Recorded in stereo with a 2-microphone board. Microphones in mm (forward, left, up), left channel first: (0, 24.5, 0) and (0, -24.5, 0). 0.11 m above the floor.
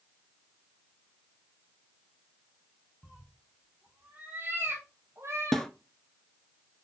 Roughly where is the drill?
No drill in this recording.